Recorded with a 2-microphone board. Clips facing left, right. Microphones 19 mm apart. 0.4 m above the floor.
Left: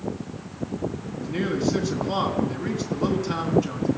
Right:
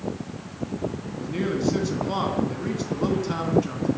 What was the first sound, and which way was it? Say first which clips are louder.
A man speaking: even; 5° left (ahead or behind).